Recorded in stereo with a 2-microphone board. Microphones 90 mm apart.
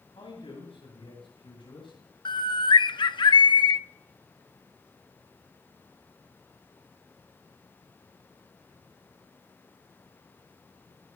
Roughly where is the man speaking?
Left.